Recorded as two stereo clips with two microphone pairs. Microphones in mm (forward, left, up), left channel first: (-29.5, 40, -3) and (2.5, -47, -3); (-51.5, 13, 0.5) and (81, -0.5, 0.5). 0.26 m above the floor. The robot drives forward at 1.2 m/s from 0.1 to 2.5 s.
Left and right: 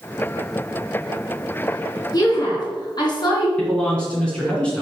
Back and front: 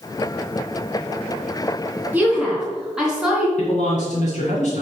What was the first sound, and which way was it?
A woman speaking, 70° left.